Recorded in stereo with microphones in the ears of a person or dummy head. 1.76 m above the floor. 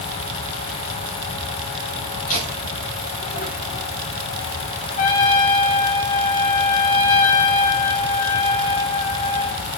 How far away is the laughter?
About 4 m.